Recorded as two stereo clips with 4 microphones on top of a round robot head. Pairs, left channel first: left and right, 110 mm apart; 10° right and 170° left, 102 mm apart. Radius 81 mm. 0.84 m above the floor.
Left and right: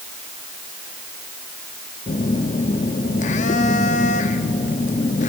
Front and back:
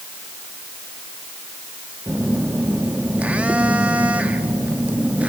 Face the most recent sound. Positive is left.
turn(degrees=90)